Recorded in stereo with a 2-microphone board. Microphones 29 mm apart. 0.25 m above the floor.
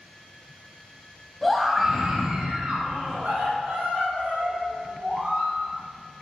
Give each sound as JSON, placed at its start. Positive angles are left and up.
{"t": 1.4, "sound": "a scream", "side_deg": 5, "distance_m": 1.4}